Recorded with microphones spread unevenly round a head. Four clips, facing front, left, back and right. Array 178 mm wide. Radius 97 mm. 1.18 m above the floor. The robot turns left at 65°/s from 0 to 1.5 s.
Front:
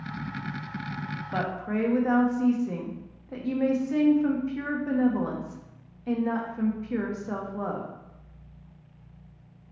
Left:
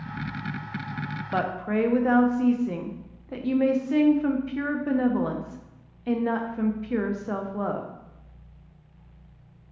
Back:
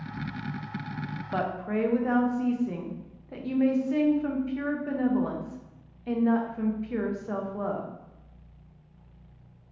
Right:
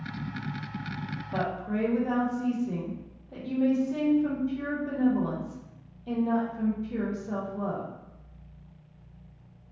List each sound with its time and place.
1.3 s a woman speaking: 80° left, 0.6 m; by 7.9 s 65° left, 0.6 m